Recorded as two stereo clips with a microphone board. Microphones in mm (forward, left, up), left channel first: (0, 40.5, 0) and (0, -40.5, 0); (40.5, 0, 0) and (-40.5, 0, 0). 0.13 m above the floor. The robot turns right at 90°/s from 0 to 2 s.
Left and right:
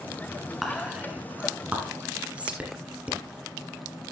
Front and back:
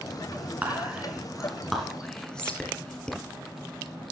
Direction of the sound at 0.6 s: Straight behind.